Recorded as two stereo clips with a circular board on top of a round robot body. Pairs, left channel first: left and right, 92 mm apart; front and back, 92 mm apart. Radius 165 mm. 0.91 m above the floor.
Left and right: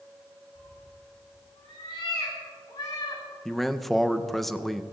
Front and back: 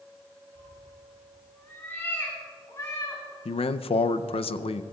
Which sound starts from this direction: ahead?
A man speaking, at 3.5 s.